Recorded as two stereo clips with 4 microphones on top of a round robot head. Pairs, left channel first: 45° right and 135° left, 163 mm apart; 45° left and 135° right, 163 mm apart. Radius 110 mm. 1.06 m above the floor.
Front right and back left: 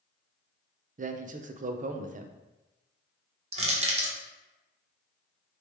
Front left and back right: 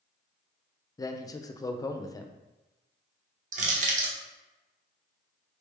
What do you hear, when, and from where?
1.0 s a man speaking: 110° left, 0.5 m
3.5 s crushing: 175° right, 1.0 m